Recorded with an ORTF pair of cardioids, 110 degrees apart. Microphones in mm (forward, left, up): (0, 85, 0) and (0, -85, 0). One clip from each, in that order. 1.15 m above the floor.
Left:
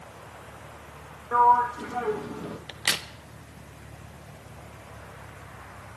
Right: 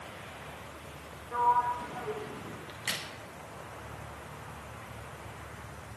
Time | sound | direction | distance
1.3 | a sliding door | 65° left | 1.5 m
2.7 | a crack | 55° left | 1.1 m